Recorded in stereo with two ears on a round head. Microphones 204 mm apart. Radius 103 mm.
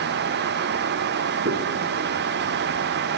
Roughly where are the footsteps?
Right.